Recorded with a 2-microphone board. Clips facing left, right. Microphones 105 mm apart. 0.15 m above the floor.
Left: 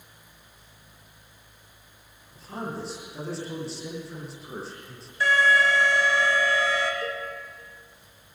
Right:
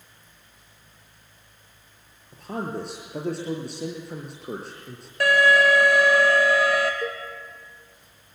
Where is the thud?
No thud in this recording.